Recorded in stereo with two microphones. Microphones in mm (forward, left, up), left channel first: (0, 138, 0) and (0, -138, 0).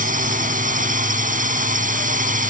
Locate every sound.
0.0 s a drone: 30° right (ahead or behind)